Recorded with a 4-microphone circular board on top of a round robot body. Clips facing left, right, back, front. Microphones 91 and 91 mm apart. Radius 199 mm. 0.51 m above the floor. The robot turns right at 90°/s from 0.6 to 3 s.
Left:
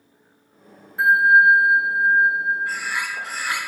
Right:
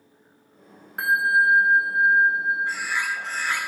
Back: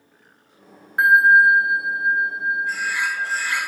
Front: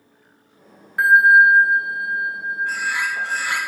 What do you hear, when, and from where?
1.0 s a bell: 115° right, 1.5 m; by 3.7 s 70° left, 1.5 m
2.7 s a bird: 25° right, 9 m; by 3.6 s 10° left, 9 m